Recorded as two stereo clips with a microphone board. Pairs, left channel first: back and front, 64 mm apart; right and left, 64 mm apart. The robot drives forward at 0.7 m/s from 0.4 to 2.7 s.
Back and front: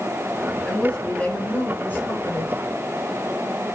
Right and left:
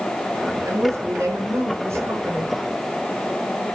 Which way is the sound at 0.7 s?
105° left.